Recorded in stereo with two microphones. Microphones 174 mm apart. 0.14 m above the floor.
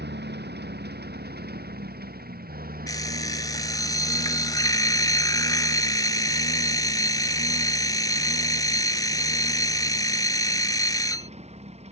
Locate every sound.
0.0 s a lawn mower: 80° right; by 11.9 s 40° right (ahead or behind)
2.9 s an alarm clock: 20° left (ahead or behind)